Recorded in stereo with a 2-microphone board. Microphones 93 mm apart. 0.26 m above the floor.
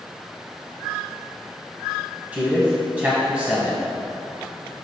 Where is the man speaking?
15° right (ahead or behind), 1.6 m.